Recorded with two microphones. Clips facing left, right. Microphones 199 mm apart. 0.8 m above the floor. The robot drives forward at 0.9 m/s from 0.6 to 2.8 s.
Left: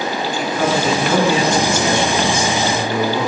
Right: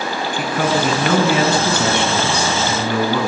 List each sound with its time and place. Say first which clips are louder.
0.3 s a man speaking: even; 60° right (ahead or behind), 8 m; by 3.3 s 70° right (ahead or behind), 7 m